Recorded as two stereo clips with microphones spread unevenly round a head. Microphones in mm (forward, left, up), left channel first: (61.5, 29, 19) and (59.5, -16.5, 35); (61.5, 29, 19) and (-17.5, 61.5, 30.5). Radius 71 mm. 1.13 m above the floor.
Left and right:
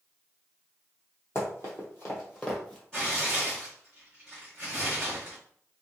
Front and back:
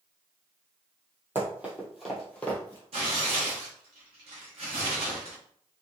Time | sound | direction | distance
1.4 | running footsteps | 130° left | 1.3 m
2.9 | tearing paper | 175° left | 1.0 m